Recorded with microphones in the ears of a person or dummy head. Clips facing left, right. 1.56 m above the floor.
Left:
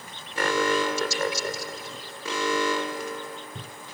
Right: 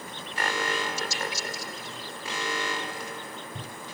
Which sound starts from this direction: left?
An alarm, at 0.4 s.